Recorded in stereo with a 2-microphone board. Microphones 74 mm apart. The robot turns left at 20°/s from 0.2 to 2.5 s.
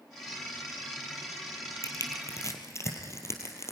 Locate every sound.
1.8 s crushing: 50° left (ahead or behind), 3 m; by 3.7 s 40° left (ahead or behind), 3 m